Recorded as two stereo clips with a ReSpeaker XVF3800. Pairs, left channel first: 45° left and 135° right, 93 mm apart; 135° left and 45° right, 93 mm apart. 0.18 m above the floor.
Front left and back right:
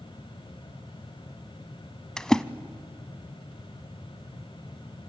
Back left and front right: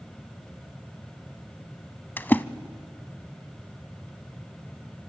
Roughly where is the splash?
Behind left.